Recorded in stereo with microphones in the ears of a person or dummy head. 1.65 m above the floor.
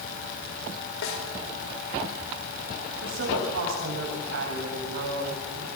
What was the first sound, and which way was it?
A snare drum, 80° left.